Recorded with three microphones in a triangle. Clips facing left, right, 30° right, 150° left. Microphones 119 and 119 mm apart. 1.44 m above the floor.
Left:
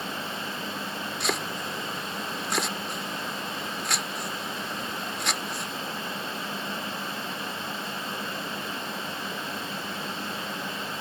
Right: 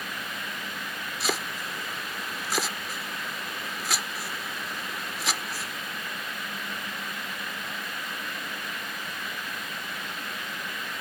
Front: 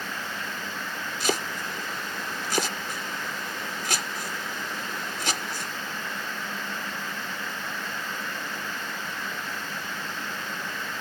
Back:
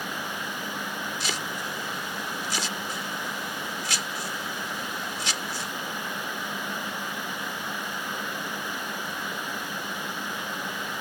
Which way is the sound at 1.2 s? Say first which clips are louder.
Even, front 4 dB; straight ahead.